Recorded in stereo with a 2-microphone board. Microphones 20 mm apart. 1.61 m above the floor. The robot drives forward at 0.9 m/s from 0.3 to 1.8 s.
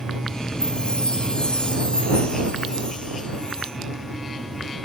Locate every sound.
0.6 s a chime: 45° left (ahead or behind), 3.5 m; by 3.7 s 35° left (ahead or behind), 4.5 m